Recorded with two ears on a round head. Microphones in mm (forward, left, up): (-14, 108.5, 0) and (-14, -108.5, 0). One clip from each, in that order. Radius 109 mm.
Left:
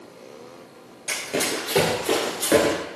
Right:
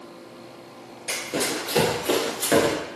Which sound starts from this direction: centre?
Running footsteps, at 1.1 s.